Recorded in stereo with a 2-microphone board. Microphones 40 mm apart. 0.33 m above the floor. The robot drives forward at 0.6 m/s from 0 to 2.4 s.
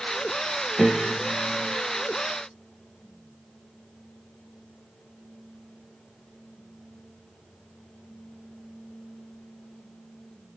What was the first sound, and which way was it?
A piano, 10° right (ahead or behind).